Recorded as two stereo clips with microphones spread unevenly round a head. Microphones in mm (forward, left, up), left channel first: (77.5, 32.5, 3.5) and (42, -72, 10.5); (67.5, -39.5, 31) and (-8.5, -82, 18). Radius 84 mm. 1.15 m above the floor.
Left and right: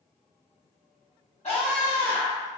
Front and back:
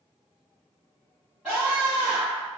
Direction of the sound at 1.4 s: 130° left.